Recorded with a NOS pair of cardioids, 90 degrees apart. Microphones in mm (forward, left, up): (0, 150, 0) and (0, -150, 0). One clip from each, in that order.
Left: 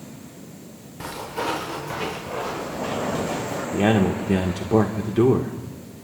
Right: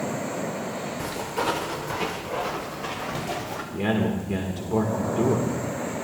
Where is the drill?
I don't hear a drill.